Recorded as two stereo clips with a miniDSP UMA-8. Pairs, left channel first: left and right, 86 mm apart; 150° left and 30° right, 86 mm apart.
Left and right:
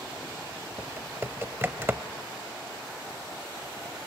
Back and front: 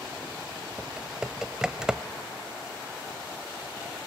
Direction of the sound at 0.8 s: 100° right.